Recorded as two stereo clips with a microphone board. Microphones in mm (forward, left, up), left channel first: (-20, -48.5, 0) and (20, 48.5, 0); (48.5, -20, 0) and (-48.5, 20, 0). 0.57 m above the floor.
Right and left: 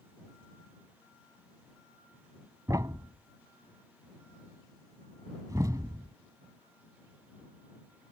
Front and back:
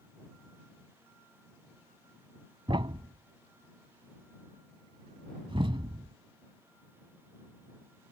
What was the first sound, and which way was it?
A thud, 125° left.